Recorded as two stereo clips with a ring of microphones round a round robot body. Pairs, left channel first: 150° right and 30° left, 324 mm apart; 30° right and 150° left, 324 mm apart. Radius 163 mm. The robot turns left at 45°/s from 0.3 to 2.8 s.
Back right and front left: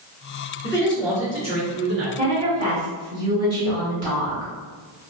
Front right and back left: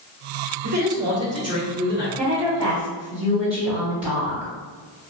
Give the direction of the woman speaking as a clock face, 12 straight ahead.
9 o'clock.